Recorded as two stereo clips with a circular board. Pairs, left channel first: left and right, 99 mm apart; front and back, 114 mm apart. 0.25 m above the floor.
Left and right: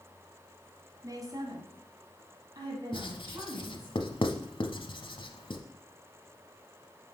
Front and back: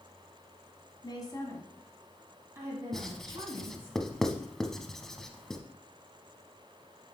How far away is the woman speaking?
About 1.7 m.